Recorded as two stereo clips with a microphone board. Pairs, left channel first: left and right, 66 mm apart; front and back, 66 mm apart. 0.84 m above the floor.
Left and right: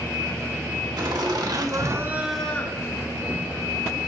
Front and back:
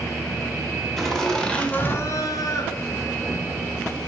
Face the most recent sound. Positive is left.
turn(degrees=60)